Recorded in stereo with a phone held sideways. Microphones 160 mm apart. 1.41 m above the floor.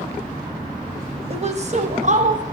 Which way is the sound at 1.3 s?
40° right (ahead or behind).